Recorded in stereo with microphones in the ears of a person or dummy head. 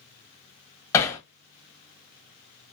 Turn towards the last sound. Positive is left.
turn(degrees=15)  # may be behind; listen again after turning